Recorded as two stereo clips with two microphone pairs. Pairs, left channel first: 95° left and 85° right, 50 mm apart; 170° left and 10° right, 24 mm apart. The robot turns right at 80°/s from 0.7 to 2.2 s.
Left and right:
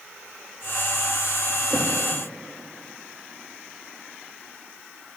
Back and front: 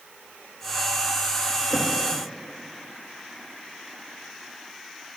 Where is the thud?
165° right, 8 m; by 1.9 s 145° right, 8 m.